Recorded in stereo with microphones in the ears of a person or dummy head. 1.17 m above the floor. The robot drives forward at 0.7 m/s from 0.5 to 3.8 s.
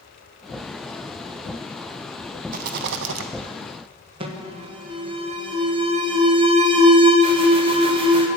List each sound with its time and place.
2.5 s a rattle: 45° right (ahead or behind), 0.6 m; by 3.3 s 55° right (ahead or behind), 0.5 m
4.2 s an alarm: 25° right (ahead or behind), 0.8 m